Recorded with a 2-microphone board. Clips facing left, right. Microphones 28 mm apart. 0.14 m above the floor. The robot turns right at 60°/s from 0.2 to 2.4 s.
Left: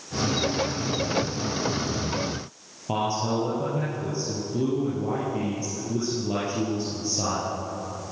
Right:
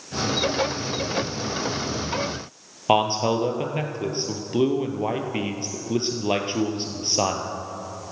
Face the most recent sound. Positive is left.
turn(degrees=-60)  # may be behind; listen again after turning